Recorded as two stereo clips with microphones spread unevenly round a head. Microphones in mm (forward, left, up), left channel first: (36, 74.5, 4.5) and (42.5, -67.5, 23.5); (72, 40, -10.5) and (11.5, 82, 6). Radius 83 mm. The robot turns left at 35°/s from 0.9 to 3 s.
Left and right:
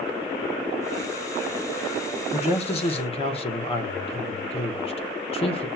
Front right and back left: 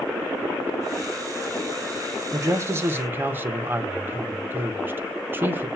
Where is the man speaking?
105° left, 0.9 m; by 5.7 s 80° left, 0.9 m.